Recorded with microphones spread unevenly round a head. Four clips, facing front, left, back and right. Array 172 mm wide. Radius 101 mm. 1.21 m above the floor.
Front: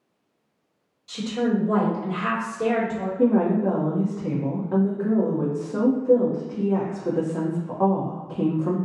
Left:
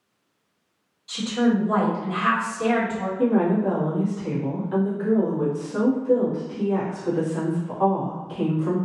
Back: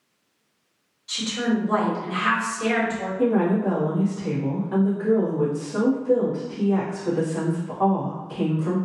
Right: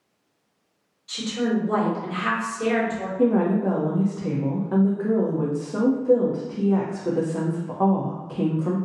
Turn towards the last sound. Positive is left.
turn(degrees=-45)